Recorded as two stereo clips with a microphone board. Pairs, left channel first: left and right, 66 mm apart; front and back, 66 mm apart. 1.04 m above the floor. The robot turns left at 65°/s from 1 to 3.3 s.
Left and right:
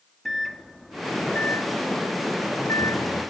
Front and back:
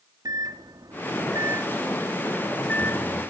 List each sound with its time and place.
0.2 s a microwave: 175° left, 1.0 m; by 3.2 s 35° left, 1.0 m